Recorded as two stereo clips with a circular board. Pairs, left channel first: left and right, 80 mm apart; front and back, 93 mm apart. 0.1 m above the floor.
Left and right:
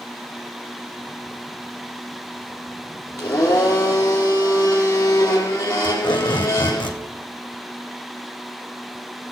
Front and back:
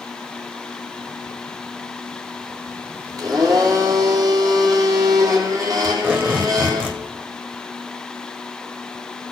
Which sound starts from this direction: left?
Tape being pulled, at 5.8 s.